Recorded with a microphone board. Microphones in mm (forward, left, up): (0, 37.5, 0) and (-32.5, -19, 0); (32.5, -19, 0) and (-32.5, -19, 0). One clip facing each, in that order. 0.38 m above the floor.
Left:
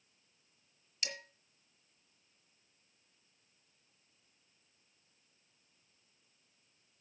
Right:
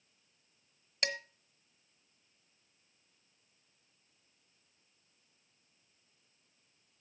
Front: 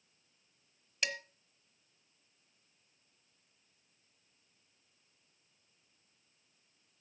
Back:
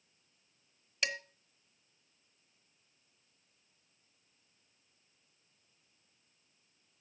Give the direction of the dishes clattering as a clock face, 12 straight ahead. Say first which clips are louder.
Right 7 dB, back 1 dB; 3 o'clock.